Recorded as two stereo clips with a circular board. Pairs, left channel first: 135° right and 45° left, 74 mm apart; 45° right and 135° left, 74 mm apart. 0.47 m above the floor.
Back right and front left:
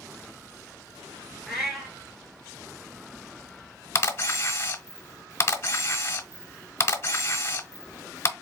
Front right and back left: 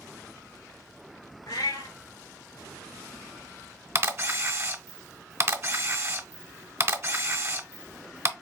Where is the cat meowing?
45° right, 1.1 m.